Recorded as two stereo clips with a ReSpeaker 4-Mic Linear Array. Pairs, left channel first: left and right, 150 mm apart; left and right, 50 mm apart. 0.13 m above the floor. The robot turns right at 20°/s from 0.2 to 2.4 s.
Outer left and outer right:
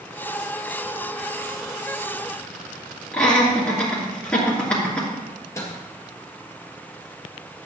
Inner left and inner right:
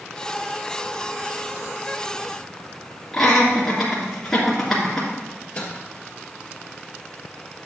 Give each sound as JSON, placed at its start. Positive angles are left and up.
{"t": 3.1, "sound": "laughter", "side_deg": 10, "distance_m": 2.0}
{"t": 5.3, "sound": "a microwave", "side_deg": 20, "distance_m": 3.0}